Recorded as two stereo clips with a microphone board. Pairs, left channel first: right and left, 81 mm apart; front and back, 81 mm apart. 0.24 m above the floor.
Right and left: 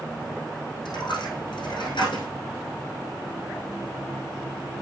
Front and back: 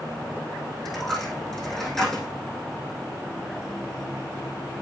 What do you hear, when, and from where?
0.8 s a dropped coin: 85° right, 4 m